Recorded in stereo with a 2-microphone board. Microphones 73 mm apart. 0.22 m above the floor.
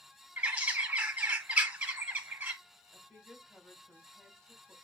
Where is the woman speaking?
10° left (ahead or behind), 1.5 m.